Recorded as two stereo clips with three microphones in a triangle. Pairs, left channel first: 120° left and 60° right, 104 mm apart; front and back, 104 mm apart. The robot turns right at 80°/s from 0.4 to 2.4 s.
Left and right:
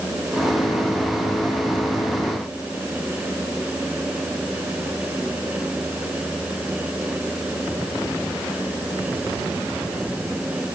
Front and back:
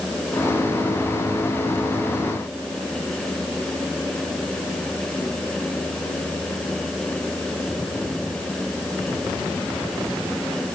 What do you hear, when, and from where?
Only background noise.